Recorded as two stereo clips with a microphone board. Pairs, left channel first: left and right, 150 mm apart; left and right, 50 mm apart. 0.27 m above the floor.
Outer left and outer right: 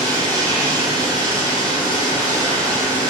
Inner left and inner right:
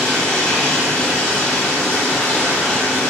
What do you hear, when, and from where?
0.0 s running water: 10° left (ahead or behind), 1.1 m